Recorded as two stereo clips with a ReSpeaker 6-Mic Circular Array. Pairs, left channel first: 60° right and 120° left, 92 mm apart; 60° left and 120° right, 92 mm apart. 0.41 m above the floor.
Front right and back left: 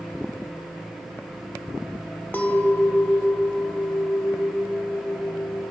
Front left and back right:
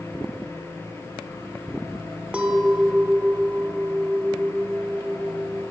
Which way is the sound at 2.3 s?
70° right.